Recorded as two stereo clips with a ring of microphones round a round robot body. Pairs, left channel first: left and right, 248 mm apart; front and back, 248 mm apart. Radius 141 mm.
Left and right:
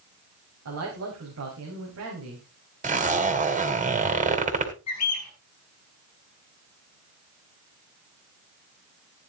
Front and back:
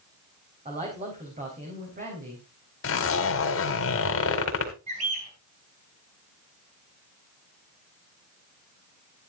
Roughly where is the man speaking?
Behind right.